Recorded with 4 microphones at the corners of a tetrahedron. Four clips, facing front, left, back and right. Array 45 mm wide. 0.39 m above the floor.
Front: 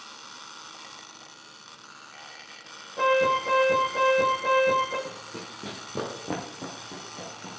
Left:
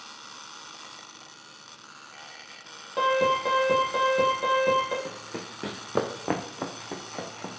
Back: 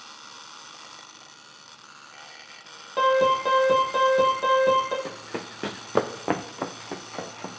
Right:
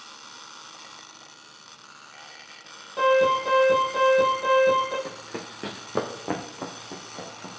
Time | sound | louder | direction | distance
3.0 | an alarm | right 3 dB, back 2 dB | 155° left | 8.5 m
5.0 | running footsteps | right 1 dB, back 4 dB | 165° right | 1.8 m